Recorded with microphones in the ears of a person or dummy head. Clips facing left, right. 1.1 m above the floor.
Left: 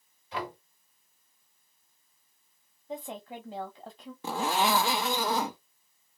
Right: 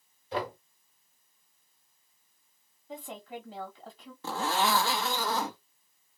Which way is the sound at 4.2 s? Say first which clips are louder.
Left 1 dB; 15° left (ahead or behind).